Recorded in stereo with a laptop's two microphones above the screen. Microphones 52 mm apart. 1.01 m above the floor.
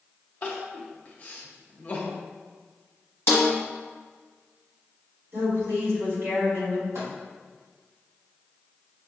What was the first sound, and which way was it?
Crying, 35° left (ahead or behind).